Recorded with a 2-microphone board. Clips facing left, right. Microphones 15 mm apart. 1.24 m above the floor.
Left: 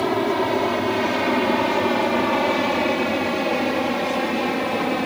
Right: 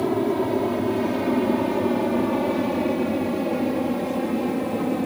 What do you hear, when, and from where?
0.0 s an aircraft: 40° left (ahead or behind); by 5.1 s 50° left (ahead or behind)